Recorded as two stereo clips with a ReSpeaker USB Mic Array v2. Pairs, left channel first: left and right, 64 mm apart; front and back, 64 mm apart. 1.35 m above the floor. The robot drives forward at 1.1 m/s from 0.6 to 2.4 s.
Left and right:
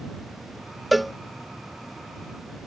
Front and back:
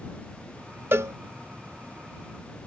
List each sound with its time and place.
0.9 s a cowbell: straight behind